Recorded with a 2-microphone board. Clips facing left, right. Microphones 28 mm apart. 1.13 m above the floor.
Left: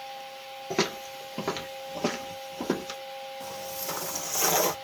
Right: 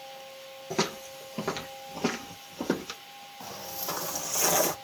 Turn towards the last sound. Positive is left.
turn(degrees=20)  # may be behind; listen again after turning